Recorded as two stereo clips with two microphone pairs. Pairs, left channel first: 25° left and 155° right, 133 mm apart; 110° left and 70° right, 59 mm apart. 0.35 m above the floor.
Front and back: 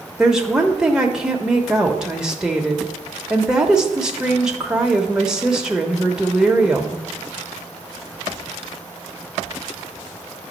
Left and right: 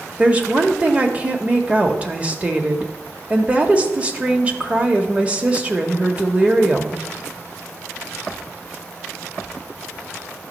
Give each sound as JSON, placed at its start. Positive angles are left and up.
{"t": 0.2, "sound": "a woman speaking", "azimuth_deg": -75, "distance_m": 0.9}